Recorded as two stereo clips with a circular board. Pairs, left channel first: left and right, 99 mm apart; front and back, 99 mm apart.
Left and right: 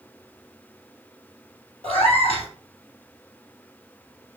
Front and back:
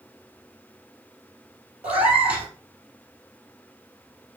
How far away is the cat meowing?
About 2.0 m.